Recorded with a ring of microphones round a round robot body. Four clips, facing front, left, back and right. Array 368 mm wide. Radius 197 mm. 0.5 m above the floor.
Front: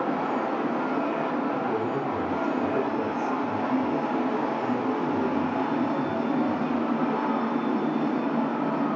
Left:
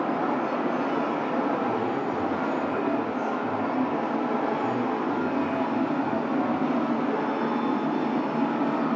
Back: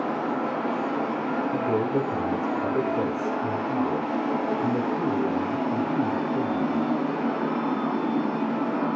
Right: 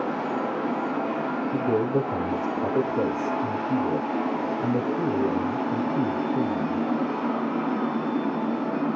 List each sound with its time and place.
1.5 s a man speaking: 115° right, 2 m